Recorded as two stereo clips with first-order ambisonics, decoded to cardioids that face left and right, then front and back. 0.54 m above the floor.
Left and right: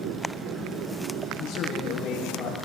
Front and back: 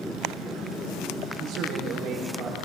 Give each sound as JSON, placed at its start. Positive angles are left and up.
{"t": 1.4, "sound": "a man speaking", "azimuth_deg": 125, "distance_m": 8.5}